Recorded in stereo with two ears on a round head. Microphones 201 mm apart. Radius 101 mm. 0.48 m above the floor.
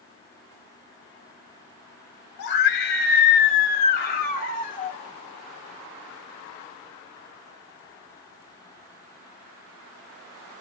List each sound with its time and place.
2.4 s a scream: 50° left (ahead or behind), 1.5 m; by 5.0 s 40° left (ahead or behind), 2.5 m